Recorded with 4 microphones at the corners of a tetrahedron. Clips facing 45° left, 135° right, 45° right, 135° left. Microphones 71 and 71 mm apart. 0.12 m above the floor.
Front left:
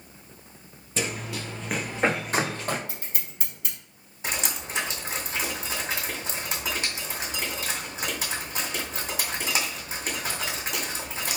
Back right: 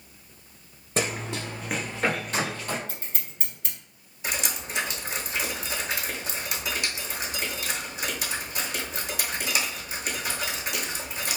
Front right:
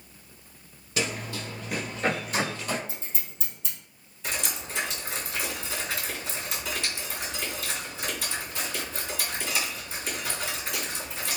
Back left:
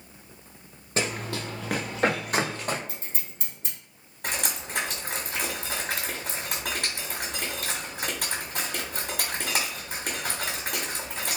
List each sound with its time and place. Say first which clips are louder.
1.0 s running footsteps: back right 2 dB, back left 2 dB; 175° right, 0.8 m; by 2.8 s 90° left, 1.2 m
2.9 s scissors: even, even; 125° left, 1.9 m
4.2 s dripping: even, back left 1 dB; 105° left, 1.9 m